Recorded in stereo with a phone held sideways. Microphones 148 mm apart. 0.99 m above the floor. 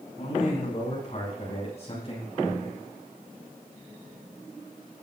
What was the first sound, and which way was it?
A man speaking, 55° left (ahead or behind).